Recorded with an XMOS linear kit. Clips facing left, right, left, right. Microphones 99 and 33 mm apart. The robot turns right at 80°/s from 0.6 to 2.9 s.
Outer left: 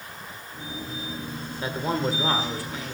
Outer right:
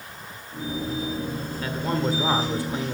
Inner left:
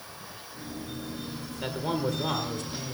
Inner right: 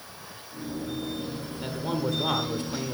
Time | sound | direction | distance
1.6 | a man speaking | 140° left | 1.3 m